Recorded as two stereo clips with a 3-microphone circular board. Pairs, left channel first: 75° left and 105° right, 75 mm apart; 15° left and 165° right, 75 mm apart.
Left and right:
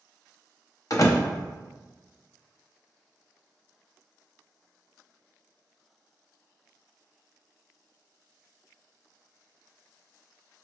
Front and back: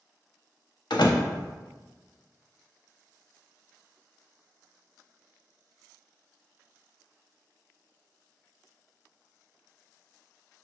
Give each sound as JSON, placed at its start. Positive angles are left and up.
{"t": 0.9, "sound": "a door slam", "azimuth_deg": 35, "distance_m": 0.8}